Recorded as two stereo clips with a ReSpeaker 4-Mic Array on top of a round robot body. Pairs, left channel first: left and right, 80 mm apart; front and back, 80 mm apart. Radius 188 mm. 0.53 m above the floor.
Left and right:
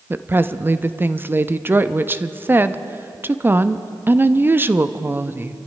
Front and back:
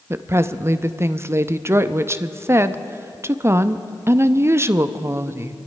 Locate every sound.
0.1 s a woman speaking: 140° right, 0.8 m